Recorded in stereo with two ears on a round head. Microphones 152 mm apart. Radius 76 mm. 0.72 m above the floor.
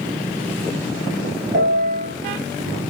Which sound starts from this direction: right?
A piano, at 1.5 s.